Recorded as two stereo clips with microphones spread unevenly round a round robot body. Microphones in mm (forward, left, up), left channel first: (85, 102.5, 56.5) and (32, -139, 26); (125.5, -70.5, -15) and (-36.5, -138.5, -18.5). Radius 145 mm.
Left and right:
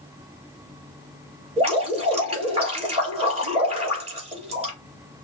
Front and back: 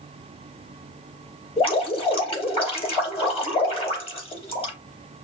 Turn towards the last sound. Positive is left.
turn(degrees=-35)